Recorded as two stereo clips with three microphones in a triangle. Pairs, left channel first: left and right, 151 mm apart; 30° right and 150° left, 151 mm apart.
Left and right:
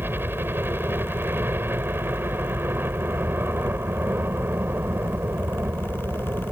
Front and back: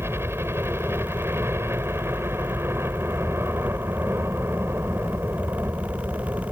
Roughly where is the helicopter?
Behind right.